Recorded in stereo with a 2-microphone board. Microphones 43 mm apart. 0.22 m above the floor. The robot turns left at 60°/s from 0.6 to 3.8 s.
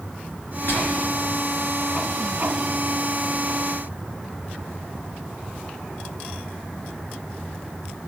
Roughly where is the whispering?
Left.